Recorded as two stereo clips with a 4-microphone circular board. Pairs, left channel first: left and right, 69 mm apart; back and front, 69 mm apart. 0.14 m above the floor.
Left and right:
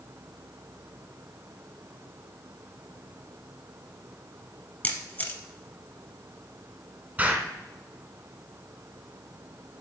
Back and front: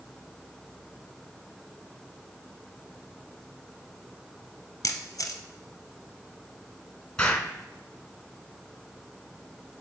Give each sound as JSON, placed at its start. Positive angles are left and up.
{"t": 4.8, "sound": "a camera shutter", "azimuth_deg": 145, "distance_m": 1.1}
{"t": 7.2, "sound": "an explosion", "azimuth_deg": -120, "distance_m": 1.2}